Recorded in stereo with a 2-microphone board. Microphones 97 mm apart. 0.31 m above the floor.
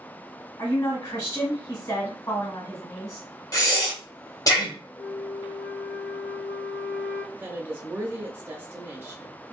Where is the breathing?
35° left (ahead or behind), 1.1 m.